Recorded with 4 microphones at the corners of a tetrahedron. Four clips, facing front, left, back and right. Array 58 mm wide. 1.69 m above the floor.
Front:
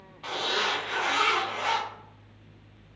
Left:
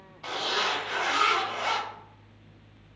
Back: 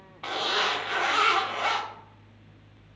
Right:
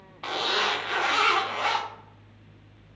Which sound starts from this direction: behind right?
A zipper, at 0.2 s.